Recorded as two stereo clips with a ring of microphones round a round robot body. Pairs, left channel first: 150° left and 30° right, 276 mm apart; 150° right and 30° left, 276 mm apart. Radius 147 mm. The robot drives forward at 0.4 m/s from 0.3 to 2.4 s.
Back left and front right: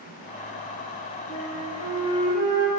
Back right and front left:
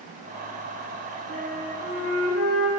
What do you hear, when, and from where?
1.3 s a flute: 75° left, 1.8 m; by 2.7 s 90° left, 1.8 m